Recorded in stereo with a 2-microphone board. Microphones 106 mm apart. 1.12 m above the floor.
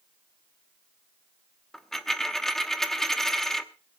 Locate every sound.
1.7 s a dropped coin: 5° left (ahead or behind), 0.9 m